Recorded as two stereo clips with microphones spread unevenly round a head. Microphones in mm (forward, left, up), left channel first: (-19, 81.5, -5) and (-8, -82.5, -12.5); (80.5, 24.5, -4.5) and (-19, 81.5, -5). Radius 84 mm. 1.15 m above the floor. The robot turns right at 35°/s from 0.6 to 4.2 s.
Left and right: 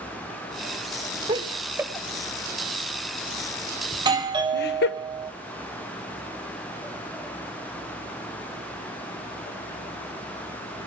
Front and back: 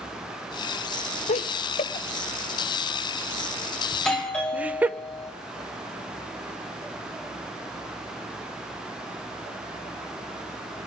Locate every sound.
1.3 s laughter: 30° right, 0.9 m; by 4.9 s 75° left, 0.9 m
3.9 s a doorbell: 115° right, 1.0 m; by 5.3 s 105° right, 1.0 m